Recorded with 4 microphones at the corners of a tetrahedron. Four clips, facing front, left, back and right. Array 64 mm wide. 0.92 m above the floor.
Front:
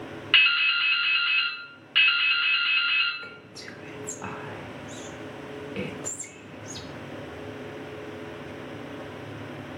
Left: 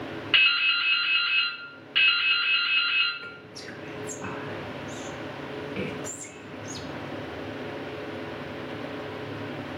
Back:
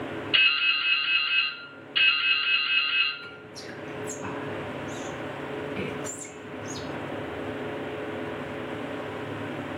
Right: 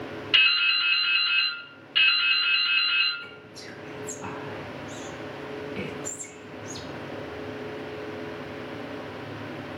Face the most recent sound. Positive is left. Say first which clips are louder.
# left 2 dB, back 1 dB
turn(degrees=25)